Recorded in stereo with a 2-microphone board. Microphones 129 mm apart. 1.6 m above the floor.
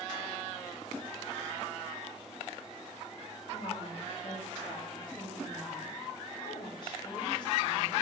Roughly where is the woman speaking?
Left.